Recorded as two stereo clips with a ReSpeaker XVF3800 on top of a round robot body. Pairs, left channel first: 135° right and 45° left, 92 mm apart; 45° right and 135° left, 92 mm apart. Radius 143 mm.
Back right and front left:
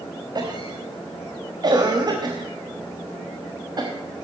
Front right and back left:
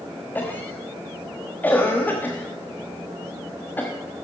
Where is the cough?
20° left, 1.3 m.